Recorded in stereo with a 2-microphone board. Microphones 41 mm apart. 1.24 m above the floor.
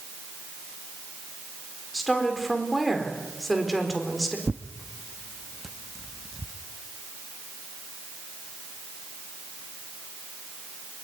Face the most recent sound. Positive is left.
turn(degrees=0)  # may be behind; listen again after turning